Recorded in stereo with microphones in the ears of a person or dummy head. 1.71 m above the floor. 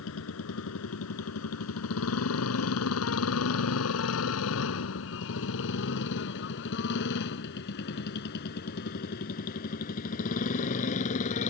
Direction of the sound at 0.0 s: 70° left (ahead or behind).